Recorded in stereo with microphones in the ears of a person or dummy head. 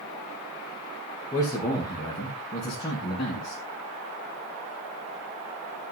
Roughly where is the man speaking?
Left.